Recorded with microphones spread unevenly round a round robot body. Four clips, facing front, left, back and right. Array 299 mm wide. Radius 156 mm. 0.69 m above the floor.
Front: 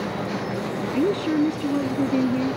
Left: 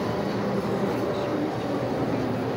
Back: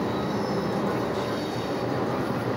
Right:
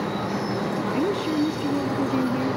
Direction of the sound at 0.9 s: 20° right.